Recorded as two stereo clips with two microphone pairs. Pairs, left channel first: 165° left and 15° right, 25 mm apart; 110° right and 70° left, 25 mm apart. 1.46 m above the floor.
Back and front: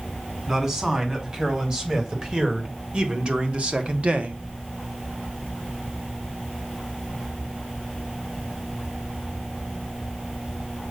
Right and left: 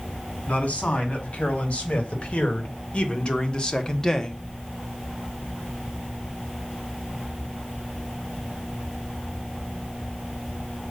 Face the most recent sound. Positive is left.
turn(degrees=-30)